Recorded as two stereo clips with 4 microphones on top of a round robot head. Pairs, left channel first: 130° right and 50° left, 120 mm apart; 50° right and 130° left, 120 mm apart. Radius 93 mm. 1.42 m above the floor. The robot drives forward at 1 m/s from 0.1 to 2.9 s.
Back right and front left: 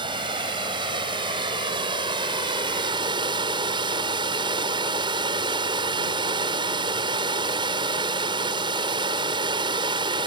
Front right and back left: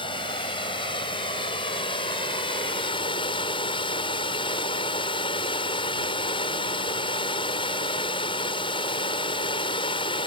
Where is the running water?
Straight ahead.